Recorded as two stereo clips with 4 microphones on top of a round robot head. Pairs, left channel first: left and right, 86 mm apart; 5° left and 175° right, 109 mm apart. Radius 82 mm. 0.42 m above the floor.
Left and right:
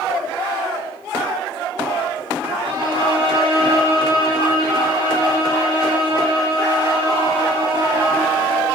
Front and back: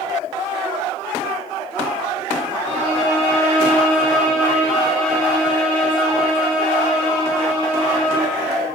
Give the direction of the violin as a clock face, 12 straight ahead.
2 o'clock.